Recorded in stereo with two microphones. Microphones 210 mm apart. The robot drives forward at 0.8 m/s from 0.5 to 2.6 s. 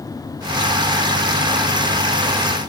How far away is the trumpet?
I don't hear a trumpet.